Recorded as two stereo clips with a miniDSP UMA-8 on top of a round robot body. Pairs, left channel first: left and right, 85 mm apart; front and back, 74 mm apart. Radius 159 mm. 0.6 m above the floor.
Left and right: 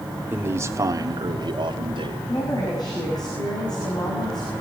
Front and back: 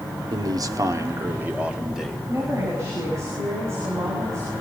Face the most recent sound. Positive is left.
turn(degrees=125)